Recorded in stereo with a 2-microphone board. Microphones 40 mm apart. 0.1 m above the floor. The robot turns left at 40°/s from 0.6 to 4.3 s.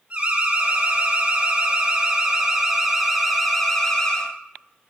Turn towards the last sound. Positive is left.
turn(degrees=140)